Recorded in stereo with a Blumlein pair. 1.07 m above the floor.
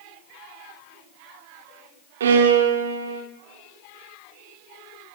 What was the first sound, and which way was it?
A violin, 60° right.